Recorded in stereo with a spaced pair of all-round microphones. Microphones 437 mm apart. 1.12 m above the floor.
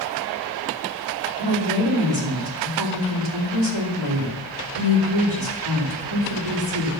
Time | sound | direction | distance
1.4 | a woman speaking | 85° right | 3.5 m